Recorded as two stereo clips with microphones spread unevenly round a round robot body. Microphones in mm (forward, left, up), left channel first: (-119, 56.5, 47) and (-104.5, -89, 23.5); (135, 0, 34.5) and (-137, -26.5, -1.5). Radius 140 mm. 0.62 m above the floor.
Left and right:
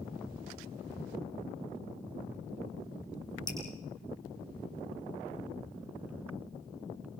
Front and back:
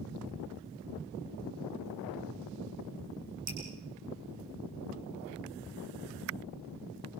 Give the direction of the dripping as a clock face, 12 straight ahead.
7 o'clock.